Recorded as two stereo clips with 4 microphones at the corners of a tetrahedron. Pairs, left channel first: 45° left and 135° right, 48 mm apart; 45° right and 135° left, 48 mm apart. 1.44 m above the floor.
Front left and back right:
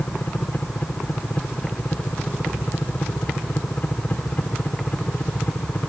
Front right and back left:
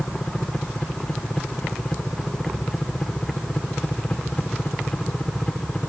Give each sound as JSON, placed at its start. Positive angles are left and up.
{"t": 0.0, "sound": "a helicopter", "azimuth_deg": 15}